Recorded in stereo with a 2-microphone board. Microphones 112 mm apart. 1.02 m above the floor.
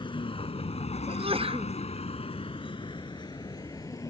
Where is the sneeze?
60° right (ahead or behind).